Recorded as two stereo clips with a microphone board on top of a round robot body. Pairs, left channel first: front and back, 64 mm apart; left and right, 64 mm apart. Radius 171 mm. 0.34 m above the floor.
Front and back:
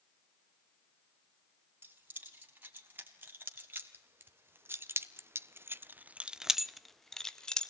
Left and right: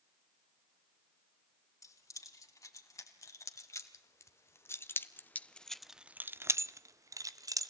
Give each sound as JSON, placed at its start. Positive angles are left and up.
{"t": 1.8, "sound": "keys jangling", "azimuth_deg": 120, "distance_m": 3.5}